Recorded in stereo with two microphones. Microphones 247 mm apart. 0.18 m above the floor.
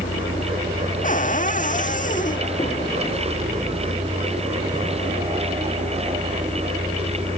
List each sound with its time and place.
0.0 s a vehicle: 40° left (ahead or behind); by 7.4 s centre (ahead or behind)
1.0 s a cupboard door: 35° left (ahead or behind)